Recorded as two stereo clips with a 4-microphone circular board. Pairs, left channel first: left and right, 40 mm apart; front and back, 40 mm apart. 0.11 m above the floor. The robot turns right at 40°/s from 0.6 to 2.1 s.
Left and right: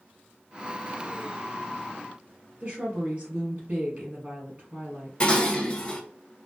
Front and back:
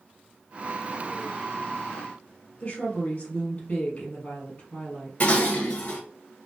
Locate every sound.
2.6 s a woman speaking: 45° right, 2.0 m
5.2 s dishes clattering: 40° left, 1.2 m